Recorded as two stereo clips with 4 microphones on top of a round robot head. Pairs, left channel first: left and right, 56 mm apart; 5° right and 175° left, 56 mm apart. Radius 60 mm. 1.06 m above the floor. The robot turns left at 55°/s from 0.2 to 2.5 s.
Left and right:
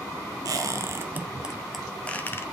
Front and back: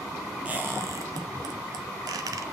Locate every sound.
0.5 s a squeak: 110° right, 0.8 m; by 2.4 s 140° left, 0.8 m